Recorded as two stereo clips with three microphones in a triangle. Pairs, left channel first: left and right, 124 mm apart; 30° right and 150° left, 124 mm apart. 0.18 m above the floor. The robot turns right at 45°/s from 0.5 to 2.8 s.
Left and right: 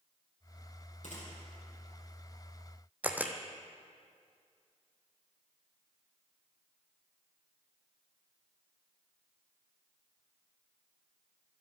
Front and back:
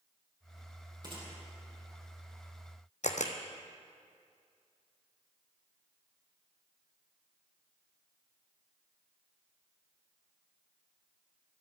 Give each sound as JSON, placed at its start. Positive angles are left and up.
{"t": 1.0, "sound": "a gunshot", "azimuth_deg": 95, "distance_m": 4.5}
{"t": 3.0, "sound": "a camera shutter", "azimuth_deg": -15, "distance_m": 1.3}